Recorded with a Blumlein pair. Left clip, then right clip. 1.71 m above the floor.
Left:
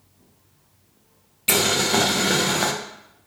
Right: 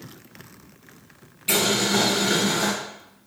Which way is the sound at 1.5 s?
20° left.